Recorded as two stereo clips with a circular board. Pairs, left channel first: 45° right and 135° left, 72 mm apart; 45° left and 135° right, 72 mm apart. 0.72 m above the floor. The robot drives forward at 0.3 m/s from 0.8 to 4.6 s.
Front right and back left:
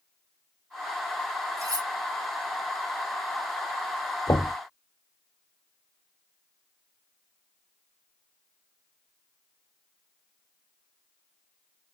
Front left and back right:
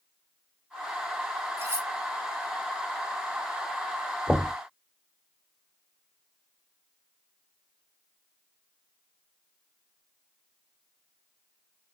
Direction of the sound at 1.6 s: 175° left.